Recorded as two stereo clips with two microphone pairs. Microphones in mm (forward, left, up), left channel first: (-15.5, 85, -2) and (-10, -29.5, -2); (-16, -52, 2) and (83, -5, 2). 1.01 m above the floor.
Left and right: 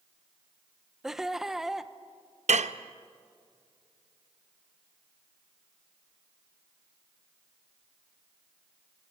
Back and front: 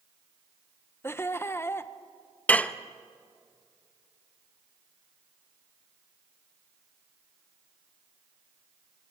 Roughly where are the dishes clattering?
Right.